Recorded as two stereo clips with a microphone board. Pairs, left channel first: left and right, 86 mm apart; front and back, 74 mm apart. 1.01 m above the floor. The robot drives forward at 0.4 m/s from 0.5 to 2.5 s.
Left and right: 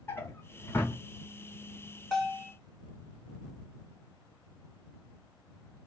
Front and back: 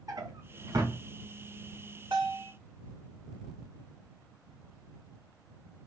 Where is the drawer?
150° left, 1.3 m; by 1.0 s 155° left, 1.4 m.